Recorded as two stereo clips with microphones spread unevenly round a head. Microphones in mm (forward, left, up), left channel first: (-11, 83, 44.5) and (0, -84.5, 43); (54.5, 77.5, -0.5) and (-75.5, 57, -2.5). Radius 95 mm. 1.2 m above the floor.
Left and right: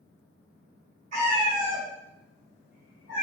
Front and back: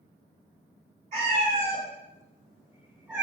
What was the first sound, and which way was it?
A cat meowing, 130° right.